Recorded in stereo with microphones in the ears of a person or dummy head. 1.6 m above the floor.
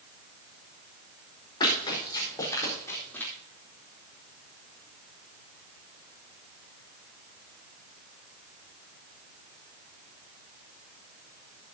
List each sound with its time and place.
1.6 s running footsteps: 25° left (ahead or behind), 5.5 m; by 3.3 s 10° left (ahead or behind), 3.5 m